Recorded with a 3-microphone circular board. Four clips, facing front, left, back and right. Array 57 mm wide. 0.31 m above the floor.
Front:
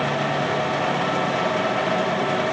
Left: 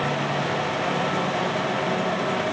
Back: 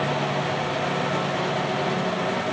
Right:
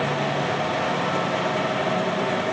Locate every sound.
Only background noise.